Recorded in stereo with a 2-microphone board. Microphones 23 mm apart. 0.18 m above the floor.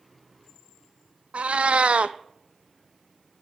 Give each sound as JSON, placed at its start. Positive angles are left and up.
{"t": 1.3, "sound": "a cat meowing", "side_deg": -80, "distance_m": 0.6}